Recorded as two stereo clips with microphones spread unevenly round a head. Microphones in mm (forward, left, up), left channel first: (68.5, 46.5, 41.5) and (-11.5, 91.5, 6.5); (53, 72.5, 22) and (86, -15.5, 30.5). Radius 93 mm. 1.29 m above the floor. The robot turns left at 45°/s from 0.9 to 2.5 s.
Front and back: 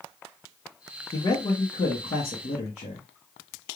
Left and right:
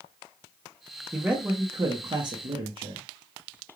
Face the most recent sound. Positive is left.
turn(degrees=-45)